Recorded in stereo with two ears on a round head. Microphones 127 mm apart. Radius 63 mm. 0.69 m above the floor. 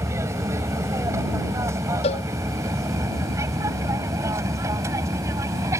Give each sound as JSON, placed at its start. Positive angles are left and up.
{"t": 0.0, "sound": "an aircraft", "side_deg": -20}
{"t": 2.0, "sound": "a cowbell", "side_deg": 45}